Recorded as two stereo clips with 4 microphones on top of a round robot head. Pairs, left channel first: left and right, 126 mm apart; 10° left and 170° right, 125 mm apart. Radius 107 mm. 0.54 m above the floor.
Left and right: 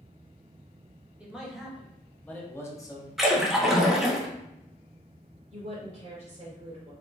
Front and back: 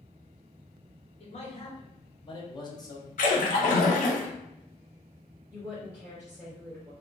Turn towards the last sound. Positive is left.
turn(degrees=-85)